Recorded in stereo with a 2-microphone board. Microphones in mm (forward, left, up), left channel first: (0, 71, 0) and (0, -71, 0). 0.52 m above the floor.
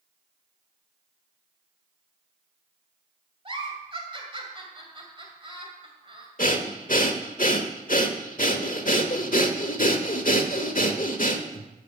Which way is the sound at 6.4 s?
70° left (ahead or behind).